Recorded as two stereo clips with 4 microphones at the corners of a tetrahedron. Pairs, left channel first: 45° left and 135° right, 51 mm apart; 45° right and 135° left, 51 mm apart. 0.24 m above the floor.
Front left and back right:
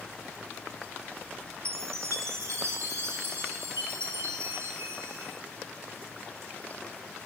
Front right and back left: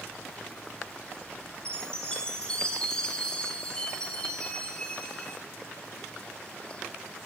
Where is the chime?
120° right, 2 m.